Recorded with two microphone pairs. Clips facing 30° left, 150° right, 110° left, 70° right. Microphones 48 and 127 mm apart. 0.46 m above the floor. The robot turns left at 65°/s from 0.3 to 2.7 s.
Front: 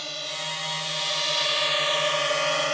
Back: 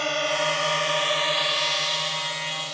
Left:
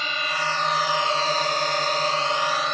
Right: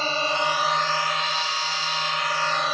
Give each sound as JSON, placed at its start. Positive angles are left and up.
{"t": 0.0, "sound": "a drone", "azimuth_deg": -120}